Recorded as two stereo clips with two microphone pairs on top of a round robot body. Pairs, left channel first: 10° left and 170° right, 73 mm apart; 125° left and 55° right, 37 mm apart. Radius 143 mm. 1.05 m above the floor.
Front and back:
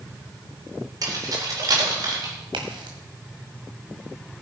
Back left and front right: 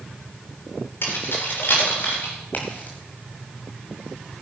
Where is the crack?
175° left, 1.5 m.